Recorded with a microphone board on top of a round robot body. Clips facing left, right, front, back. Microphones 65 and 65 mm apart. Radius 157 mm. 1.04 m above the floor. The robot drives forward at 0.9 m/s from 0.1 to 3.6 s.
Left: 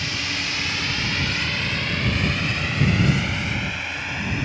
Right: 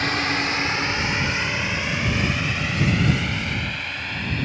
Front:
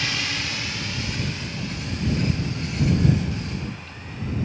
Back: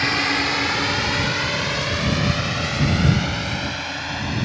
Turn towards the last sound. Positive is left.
turn(degrees=170)